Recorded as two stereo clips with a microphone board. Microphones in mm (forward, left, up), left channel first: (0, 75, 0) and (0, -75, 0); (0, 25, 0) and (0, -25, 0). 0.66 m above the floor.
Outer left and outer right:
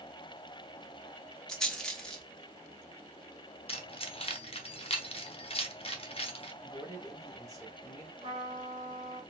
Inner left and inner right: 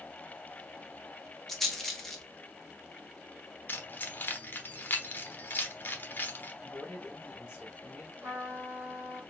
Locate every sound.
1.5 s a rattle: 5° left (ahead or behind), 0.8 m
3.7 s keys jangling: 40° left (ahead or behind), 0.7 m
6.6 s a man speaking: 25° right (ahead or behind), 2.5 m
8.2 s a trumpet: 35° right (ahead or behind), 2 m